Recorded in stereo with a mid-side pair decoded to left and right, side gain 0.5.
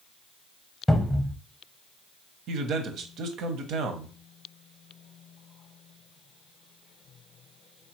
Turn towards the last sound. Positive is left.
turn(degrees=-65)